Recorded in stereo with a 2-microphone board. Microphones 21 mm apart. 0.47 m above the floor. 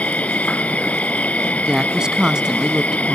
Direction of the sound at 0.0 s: 80° left.